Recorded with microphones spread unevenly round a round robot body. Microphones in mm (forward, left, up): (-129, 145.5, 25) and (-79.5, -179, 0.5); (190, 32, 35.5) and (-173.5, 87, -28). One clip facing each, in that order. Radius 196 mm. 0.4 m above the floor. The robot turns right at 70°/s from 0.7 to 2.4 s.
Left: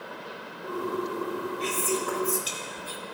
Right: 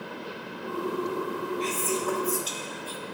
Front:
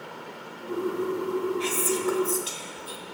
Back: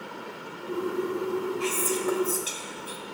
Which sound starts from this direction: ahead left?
Whispering, at 1.6 s.